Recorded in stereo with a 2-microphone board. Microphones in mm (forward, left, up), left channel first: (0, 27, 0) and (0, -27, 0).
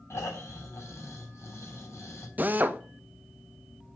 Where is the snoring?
65° left (ahead or behind), 4 m.